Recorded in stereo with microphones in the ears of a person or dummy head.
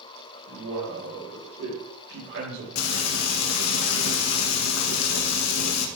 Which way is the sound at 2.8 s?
80° left.